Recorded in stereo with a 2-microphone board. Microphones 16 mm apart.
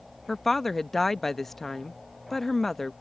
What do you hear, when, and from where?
0.3 s a woman speaking: 20° left (ahead or behind)